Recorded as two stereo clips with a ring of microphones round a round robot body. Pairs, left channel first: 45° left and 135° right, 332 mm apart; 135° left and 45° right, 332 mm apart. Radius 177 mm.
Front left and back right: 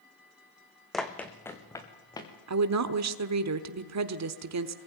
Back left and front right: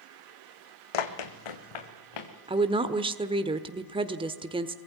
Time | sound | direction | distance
0.9 | running footsteps | 135° left | 1.9 m
2.5 | a woman speaking | 115° right | 1.2 m